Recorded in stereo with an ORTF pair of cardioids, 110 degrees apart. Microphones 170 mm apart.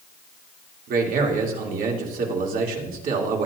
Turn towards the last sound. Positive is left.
turn(degrees=-60)